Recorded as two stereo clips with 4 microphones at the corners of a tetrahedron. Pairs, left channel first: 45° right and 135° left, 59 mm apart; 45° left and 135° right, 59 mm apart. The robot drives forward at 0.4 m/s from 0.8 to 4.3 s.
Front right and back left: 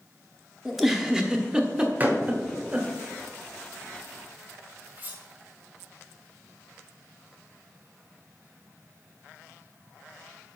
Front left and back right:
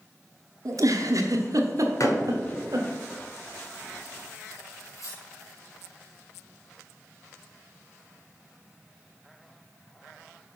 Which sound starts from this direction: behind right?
A giggle, at 0.7 s.